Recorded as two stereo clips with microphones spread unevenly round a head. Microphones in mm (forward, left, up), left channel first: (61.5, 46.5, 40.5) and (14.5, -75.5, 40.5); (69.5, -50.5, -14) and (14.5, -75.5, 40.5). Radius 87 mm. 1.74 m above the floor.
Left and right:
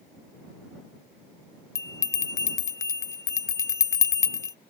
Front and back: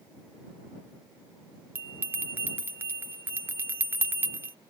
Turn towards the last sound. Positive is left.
turn(degrees=140)